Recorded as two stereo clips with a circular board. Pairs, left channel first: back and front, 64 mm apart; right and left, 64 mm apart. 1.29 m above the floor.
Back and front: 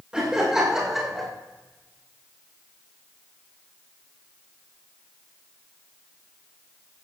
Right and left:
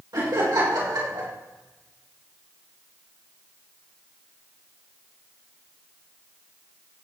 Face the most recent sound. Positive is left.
turn(degrees=90)